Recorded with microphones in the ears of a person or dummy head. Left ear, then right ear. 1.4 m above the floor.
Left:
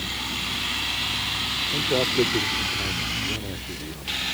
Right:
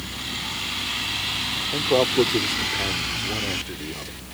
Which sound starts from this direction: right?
A man speaking, at 1.7 s.